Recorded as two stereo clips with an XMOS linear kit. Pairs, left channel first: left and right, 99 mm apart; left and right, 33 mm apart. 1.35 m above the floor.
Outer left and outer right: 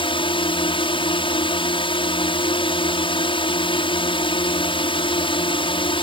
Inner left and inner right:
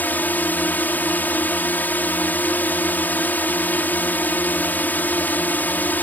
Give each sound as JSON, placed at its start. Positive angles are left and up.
{"t": 0.0, "sound": "a drone", "side_deg": 60}